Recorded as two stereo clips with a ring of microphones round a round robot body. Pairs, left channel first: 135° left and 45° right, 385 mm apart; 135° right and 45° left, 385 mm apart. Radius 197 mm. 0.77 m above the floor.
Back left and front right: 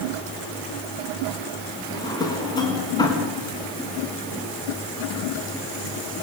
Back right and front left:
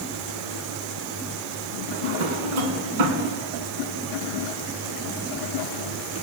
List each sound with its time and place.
1.9 s a drawer: 55° left, 4.5 m